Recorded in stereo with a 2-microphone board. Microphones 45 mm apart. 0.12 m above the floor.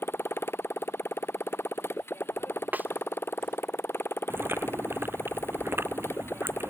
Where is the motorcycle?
65° left (ahead or behind).